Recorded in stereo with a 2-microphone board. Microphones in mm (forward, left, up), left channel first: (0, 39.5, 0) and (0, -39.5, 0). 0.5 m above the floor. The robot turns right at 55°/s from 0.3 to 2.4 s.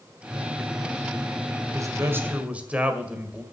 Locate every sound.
1.7 s a man speaking: 55° right, 1.9 m; by 3.4 s 20° right, 1.9 m